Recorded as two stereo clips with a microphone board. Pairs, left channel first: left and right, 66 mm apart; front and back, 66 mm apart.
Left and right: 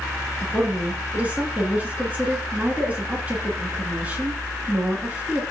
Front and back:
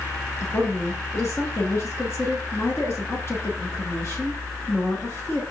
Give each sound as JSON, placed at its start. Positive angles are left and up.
{"t": 0.4, "sound": "a woman speaking", "azimuth_deg": -30, "distance_m": 2.5}